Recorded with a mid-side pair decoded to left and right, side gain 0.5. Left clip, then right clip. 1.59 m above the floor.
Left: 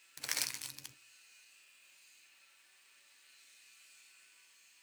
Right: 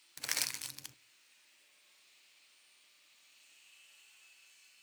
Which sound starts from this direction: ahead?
Crushing, at 0.2 s.